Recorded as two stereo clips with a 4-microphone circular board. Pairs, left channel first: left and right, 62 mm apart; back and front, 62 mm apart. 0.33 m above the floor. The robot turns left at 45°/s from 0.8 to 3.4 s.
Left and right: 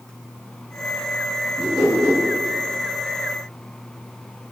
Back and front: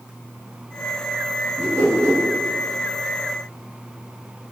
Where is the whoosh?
Straight ahead, 1.8 m; by 2.2 s 25° right, 1.8 m.